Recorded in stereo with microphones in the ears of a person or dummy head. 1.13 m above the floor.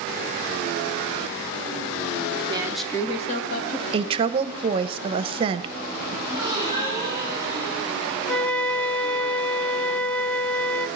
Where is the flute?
5° left (ahead or behind), 0.5 m.